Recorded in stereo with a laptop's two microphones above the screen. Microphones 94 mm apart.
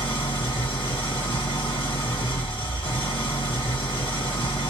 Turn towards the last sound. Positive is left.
turn(degrees=70)  # may be behind; listen again after turning